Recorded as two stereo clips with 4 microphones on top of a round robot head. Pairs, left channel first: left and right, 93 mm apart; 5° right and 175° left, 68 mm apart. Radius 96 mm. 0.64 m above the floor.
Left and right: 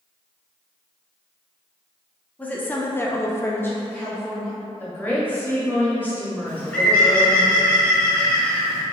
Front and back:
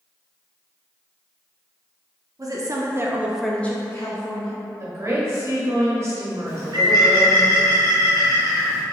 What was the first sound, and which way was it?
A woman speaking, 160° left.